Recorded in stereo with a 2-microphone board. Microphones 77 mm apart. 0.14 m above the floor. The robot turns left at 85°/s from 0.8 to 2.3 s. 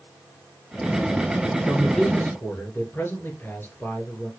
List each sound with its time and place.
1.7 s a man speaking: 160° right, 3 m; by 4.3 s 145° left, 3 m